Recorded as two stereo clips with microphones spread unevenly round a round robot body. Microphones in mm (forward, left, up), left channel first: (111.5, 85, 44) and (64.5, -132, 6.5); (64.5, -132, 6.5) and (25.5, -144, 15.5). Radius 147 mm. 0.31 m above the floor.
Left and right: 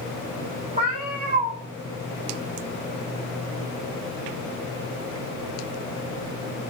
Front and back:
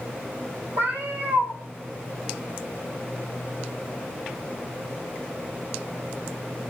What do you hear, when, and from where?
0.8 s a cat meowing: 170° right, 0.7 m